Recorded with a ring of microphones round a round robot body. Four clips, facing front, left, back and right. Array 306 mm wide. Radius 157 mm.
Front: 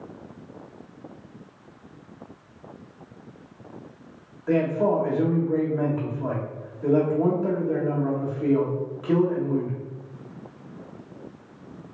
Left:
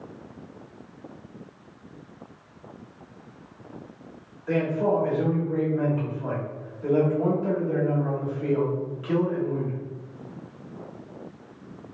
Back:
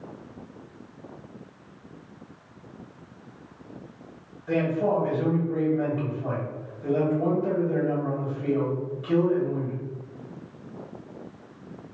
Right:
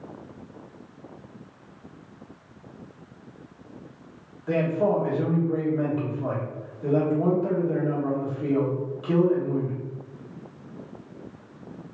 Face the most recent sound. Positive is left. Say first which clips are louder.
# right 1 dB, front 2 dB
turn(degrees=-20)